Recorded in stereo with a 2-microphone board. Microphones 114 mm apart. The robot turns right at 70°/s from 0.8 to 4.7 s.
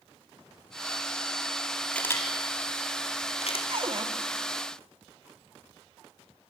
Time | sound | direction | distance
1.9 | a camera shutter | 5° left (ahead or behind) | 4 m
3.7 | a cupboard door | 50° right (ahead or behind) | 2.0 m